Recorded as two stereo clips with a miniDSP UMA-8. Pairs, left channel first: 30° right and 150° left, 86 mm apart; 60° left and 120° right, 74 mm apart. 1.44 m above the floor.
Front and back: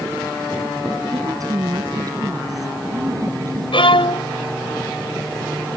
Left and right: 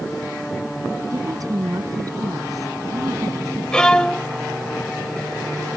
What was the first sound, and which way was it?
A woman speaking, 160° right.